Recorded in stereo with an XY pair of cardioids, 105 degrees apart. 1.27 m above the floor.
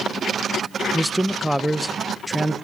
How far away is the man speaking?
About 0.7 m.